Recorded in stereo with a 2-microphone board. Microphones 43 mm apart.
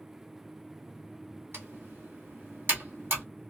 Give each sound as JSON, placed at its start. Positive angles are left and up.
{"t": 1.5, "sound": "typing on a keyboard", "side_deg": -60, "distance_m": 1.4}